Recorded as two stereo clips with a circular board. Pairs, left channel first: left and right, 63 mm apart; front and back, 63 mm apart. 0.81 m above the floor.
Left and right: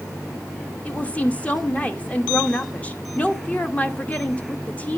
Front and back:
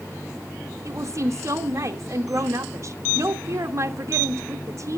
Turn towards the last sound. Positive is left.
turn(degrees=155)